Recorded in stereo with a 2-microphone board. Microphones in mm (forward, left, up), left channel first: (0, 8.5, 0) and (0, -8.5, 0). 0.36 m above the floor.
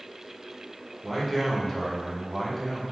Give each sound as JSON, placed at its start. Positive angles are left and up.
{"t": 1.0, "sound": "a man speaking", "side_deg": -15, "distance_m": 1.0}